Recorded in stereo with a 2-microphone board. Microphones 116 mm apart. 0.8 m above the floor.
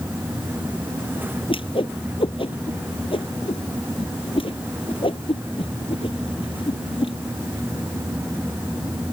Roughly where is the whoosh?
Left.